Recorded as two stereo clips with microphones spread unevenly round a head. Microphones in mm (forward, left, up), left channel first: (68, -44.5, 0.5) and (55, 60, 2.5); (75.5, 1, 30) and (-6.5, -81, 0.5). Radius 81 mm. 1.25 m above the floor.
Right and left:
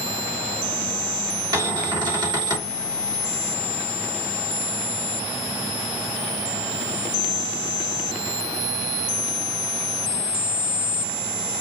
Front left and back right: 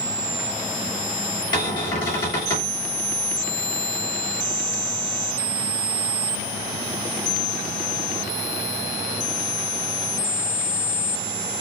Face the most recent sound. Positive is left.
turn(degrees=50)